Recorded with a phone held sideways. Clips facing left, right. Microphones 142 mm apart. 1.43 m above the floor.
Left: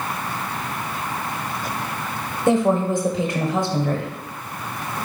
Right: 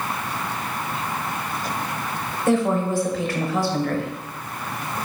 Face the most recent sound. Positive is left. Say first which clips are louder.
# left 2 dB
turn(degrees=20)  # may be behind; listen again after turning